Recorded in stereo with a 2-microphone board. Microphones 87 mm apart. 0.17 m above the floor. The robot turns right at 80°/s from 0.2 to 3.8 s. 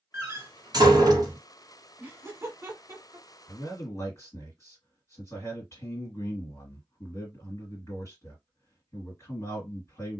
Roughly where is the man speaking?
Left.